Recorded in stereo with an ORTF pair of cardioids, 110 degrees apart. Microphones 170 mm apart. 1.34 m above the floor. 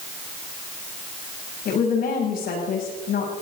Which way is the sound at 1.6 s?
60° left.